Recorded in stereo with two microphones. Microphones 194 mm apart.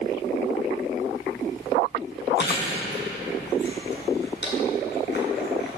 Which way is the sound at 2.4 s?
60° left (ahead or behind).